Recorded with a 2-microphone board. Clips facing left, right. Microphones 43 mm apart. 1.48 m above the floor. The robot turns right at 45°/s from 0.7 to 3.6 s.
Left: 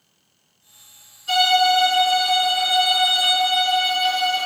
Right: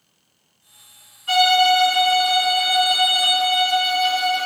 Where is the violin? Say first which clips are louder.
Right 1 dB; 105° right, 1.3 m; by 4.5 s straight ahead, 1.3 m.